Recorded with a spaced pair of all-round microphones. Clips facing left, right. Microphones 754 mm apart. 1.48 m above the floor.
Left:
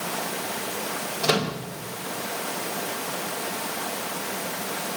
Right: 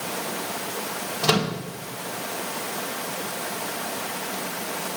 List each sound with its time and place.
1.2 s a microwave: 35° right (ahead or behind), 0.9 m